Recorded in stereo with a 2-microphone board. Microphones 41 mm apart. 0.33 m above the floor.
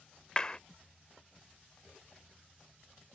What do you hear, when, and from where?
0.4 s a clap: 20° left (ahead or behind)